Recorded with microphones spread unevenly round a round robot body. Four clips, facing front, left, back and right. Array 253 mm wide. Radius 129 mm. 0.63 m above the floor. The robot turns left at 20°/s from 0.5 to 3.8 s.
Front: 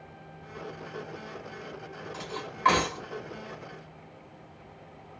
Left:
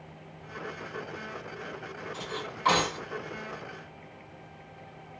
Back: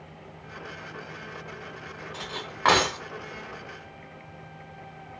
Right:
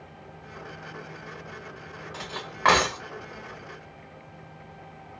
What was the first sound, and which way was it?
Cutlery clinking, 120° right.